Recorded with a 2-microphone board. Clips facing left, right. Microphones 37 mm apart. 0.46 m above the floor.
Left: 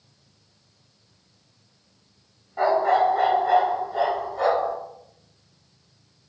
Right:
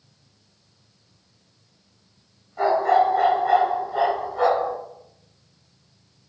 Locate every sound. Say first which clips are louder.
2.6 s a dog barking: right 1 dB; 25° left (ahead or behind), 0.9 m; by 4.7 s 25° right (ahead or behind), 1.9 m